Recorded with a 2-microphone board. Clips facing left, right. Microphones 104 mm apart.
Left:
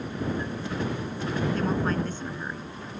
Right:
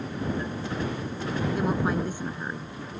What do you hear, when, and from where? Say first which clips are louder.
1.6 s a woman speaking: right 3 dB; 10° right (ahead or behind)